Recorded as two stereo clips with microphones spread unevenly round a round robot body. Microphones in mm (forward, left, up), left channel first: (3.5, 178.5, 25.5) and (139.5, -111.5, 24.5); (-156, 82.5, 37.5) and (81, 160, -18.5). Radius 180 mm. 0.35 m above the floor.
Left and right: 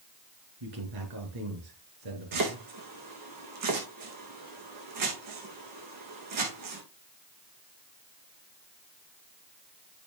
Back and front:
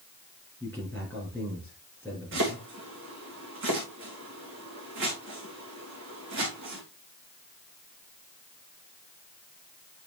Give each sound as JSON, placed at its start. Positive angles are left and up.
{"t": 0.6, "sound": "a man speaking", "azimuth_deg": -75, "distance_m": 5.5}
{"t": 2.3, "sound": "chopping", "azimuth_deg": -40, "distance_m": 3.5}